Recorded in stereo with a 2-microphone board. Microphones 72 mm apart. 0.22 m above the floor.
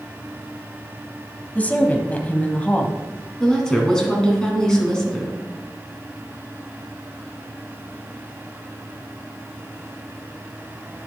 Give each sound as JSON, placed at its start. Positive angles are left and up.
{"t": 1.6, "sound": "a woman speaking", "side_deg": 20, "distance_m": 1.0}
{"t": 3.4, "sound": "a woman speaking", "side_deg": 10, "distance_m": 2.0}